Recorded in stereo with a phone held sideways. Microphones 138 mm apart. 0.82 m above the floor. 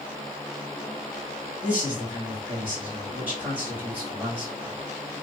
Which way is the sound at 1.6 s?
10° right (ahead or behind).